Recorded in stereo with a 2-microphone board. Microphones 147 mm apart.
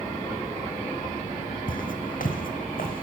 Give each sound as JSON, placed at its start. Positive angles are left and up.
{"t": 1.7, "sound": "footsteps", "side_deg": 70, "distance_m": 3.0}